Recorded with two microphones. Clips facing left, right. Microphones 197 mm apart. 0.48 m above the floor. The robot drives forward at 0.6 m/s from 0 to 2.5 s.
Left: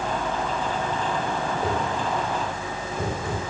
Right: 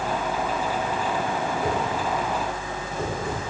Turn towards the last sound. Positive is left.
turn(degrees=20)  # may be behind; listen again after turning